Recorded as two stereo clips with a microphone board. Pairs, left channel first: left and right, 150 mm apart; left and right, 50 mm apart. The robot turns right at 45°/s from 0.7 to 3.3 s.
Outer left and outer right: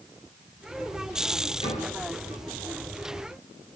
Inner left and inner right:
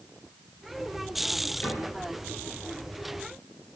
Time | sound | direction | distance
1.6 | a cupboard door | 40° left (ahead or behind) | 3.5 m